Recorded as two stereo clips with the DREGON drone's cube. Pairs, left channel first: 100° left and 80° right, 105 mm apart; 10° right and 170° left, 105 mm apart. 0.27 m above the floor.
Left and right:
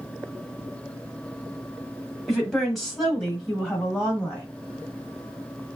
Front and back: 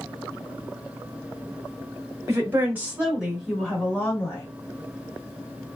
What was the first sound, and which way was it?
A woman speaking, 170° right.